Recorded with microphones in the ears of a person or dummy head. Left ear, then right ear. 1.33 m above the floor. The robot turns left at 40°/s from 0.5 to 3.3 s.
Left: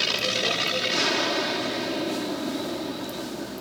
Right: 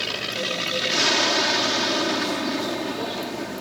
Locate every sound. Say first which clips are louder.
0.0 s an aircraft: left 2 dB; 10° left (ahead or behind); by 3.6 s 55° right (ahead or behind)